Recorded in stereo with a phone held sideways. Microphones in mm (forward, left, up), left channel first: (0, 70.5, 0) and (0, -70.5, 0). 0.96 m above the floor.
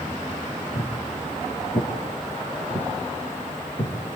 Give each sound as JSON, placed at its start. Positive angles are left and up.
{"t": 0.8, "sound": "footsteps", "side_deg": 50, "distance_m": 4.5}